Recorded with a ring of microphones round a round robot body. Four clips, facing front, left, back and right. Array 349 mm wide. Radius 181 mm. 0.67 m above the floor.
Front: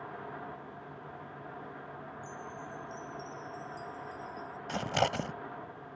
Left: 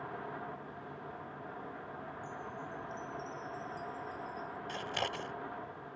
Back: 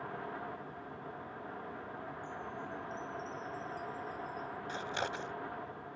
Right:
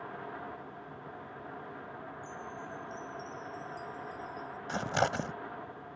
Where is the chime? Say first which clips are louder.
Right 1 dB, back 1 dB; 30° right.